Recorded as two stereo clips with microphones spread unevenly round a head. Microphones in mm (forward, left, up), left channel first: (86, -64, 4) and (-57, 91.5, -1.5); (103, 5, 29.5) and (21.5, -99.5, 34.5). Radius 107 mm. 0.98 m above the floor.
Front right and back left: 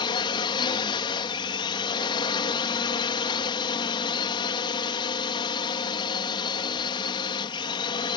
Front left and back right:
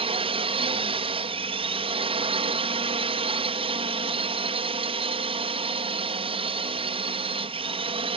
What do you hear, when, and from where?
0.0 s a drone: 110° right